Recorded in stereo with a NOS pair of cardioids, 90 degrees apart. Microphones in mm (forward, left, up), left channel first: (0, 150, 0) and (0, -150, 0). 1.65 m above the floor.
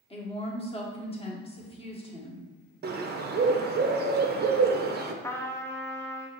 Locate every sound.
0.1 s a woman speaking: 20° left, 1.1 m
2.8 s a bird: 35° right, 0.6 m
5.2 s a trumpet: 10° left, 0.6 m